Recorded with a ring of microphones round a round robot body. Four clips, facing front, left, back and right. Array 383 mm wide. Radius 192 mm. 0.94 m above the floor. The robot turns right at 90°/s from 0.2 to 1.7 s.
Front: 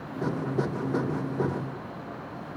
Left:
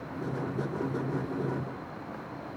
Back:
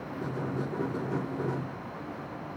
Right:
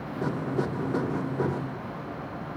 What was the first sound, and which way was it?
Only background noise.